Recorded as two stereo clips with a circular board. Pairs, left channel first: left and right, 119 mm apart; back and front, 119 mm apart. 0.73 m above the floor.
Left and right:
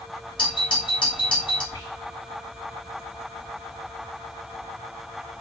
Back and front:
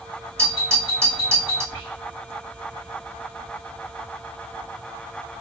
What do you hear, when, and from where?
0.4 s a doorbell: 60° left, 2.5 m
1.7 s whispering: 115° left, 1.1 m